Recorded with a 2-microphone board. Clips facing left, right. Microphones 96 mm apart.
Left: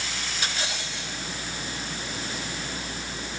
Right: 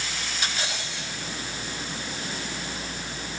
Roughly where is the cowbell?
I don't hear a cowbell.